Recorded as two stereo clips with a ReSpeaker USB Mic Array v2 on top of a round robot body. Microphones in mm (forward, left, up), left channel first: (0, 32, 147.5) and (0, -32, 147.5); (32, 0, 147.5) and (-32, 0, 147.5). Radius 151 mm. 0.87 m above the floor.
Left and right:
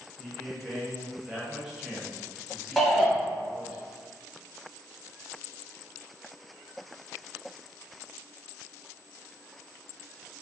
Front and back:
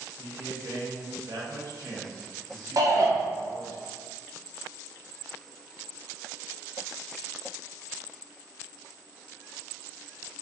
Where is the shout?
Straight behind, 1.2 m.